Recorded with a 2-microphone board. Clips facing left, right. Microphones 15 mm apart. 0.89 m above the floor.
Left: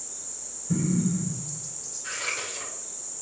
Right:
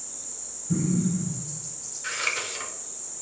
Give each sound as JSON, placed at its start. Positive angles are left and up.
{"t": 0.7, "sound": "an explosion", "side_deg": 30, "distance_m": 3.0}
{"t": 2.0, "sound": "scissors", "side_deg": -45, "distance_m": 1.8}